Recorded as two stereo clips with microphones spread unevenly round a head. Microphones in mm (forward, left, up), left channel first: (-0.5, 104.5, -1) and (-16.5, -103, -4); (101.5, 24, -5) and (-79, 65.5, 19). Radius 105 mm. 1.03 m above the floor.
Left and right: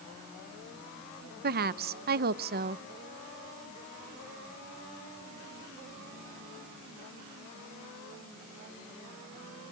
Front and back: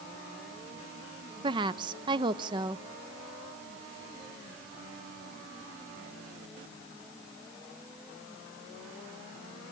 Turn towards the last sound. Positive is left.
turn(degrees=-125)